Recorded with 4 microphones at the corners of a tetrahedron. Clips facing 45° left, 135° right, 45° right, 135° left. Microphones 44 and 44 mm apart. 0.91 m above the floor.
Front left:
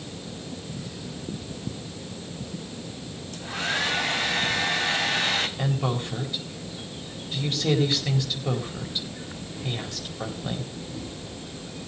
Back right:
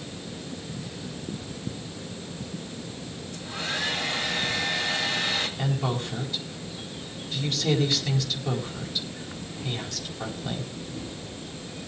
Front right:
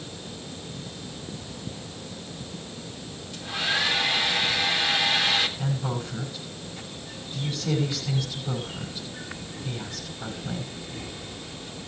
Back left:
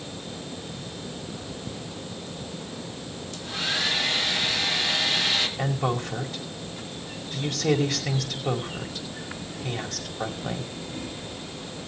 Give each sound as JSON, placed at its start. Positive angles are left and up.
{"t": 3.3, "sound": "a hair dryer", "azimuth_deg": 35, "distance_m": 3.0}
{"t": 5.6, "sound": "a woman speaking", "azimuth_deg": 115, "distance_m": 4.5}